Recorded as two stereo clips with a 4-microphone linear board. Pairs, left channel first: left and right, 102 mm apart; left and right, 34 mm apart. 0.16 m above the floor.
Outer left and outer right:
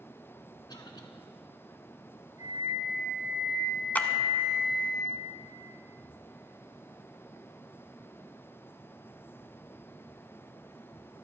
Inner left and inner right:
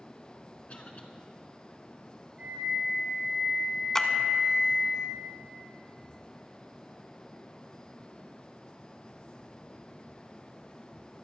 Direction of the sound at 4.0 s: 20° left (ahead or behind).